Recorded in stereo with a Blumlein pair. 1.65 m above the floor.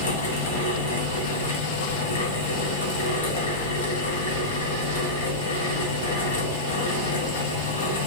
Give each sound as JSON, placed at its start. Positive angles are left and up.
{"t": 0.0, "sound": "a fan", "azimuth_deg": 65, "distance_m": 1.0}